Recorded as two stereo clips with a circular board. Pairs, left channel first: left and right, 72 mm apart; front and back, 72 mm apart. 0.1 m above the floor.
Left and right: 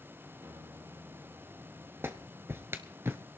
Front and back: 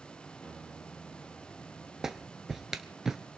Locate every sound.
0.4 s a guitar: 65° right, 3 m
2.0 s a clap: 100° right, 1.0 m